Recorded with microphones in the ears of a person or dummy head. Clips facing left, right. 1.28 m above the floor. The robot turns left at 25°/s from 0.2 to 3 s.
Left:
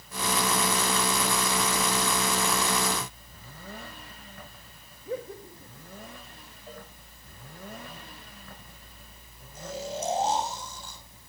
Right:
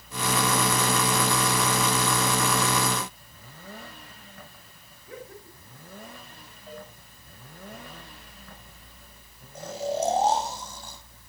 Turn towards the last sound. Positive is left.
turn(degrees=-55)  # may be behind; listen again after turning